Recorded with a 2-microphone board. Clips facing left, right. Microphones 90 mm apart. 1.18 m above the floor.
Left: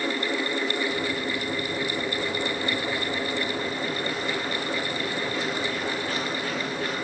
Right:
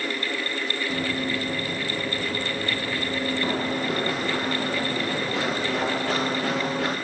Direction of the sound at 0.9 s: 70° right (ahead or behind).